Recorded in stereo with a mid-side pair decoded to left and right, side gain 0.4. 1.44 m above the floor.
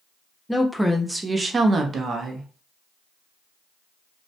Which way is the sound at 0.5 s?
10° left.